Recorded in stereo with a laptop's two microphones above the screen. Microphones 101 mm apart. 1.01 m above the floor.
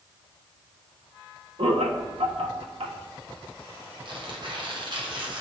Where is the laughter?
75° right (ahead or behind), 1.1 m.